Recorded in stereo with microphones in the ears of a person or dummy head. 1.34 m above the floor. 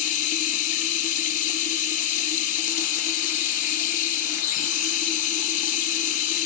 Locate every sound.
0.0 s running water: 45° left (ahead or behind), 1.9 m